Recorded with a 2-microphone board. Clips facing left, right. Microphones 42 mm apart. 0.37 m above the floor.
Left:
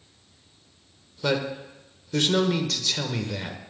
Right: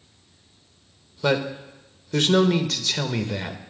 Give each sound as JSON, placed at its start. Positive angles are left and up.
{"t": 1.2, "sound": "a man speaking", "side_deg": -15, "distance_m": 0.8}